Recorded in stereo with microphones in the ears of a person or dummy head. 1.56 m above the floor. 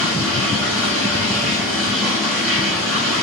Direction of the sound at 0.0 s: Centre (ahead or behind).